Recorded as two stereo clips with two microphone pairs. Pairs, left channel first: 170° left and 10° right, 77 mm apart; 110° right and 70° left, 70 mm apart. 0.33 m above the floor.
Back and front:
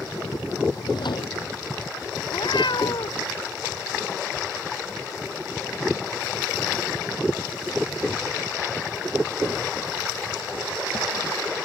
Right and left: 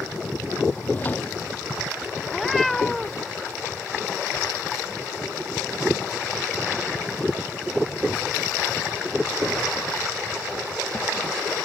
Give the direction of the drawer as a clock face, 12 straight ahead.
6 o'clock.